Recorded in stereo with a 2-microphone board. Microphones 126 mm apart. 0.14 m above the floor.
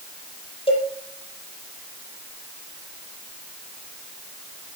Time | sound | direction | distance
0.7 | a cowbell | 45° left (ahead or behind) | 4.5 m